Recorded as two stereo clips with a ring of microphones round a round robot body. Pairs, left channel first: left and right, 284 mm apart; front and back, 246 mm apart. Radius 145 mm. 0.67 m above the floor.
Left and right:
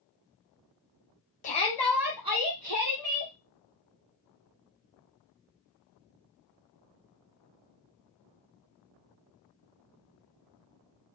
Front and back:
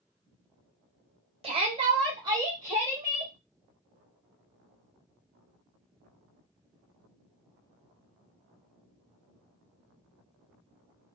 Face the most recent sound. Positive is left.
turn(degrees=-95)